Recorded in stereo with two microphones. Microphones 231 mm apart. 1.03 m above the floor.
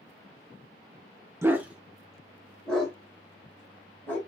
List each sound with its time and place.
1.4 s a dog barking: 10° right (ahead or behind), 0.8 m; by 4.2 s 5° left (ahead or behind), 3 m